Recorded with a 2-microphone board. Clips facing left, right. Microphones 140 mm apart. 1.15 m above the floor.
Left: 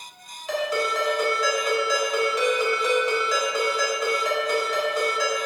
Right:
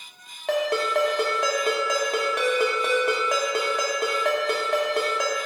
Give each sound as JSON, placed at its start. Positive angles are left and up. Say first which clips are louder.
{"t": 0.5, "sound": "a ringtone", "louder": "right 2 dB", "side_deg": -60, "distance_m": 1.0}